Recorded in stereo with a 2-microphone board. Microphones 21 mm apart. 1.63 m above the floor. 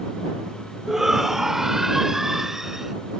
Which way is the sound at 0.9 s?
25° right (ahead or behind).